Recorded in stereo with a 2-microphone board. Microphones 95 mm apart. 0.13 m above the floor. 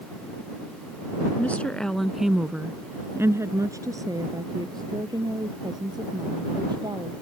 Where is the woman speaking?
15° left (ahead or behind); by 7.1 s 50° right (ahead or behind).